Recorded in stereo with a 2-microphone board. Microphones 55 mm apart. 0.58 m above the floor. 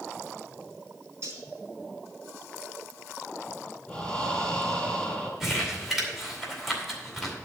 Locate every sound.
1.2 s cutlery clinking: 50° right (ahead or behind), 3 m
3.9 s breathing: 15° left (ahead or behind), 3.5 m
5.4 s crumpling: 5° right (ahead or behind), 2.5 m